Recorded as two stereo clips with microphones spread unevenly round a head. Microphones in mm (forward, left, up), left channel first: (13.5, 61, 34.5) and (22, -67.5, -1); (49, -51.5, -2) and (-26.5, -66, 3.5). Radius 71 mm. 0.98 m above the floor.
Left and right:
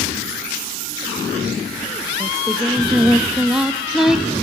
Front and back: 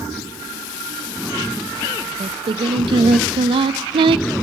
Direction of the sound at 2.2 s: 170° right.